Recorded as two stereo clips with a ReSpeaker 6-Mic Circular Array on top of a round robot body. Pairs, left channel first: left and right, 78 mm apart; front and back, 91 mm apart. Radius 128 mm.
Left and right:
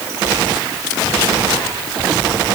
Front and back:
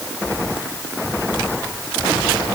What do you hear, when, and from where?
Only background noise.